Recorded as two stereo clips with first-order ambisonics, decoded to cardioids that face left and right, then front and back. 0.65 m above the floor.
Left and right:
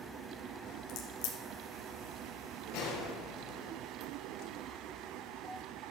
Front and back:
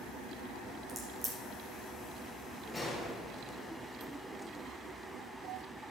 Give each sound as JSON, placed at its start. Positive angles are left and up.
{"t": 0.9, "sound": "a crack", "azimuth_deg": 105, "distance_m": 3.5}
{"t": 2.7, "sound": "a gunshot", "azimuth_deg": 90, "distance_m": 4.5}